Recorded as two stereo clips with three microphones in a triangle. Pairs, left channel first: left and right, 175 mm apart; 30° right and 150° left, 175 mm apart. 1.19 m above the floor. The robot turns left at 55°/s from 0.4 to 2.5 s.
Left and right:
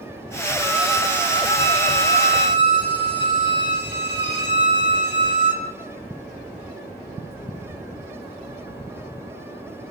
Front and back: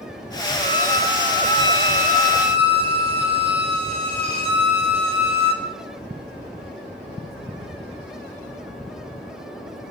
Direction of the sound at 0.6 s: 155° right.